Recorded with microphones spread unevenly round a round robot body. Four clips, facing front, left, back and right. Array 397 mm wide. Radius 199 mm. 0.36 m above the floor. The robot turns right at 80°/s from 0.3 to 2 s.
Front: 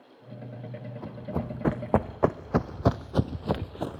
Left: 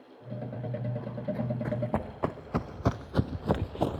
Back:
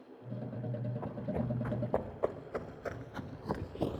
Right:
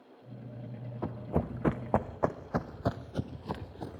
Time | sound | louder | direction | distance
1.0 | running footsteps | right 4 dB, front 4 dB | 85° right | 1.9 m